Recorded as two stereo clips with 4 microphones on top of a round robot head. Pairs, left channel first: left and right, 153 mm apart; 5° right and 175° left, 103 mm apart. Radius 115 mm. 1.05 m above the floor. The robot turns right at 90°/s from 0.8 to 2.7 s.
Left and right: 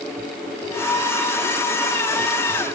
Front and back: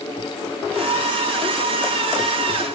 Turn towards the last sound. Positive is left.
No sound to turn to.